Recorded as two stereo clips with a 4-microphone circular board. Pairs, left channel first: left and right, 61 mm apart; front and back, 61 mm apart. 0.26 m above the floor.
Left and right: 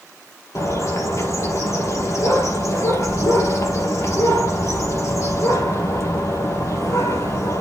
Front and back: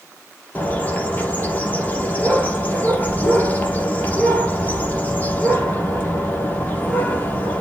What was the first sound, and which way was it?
A bird, 60° left.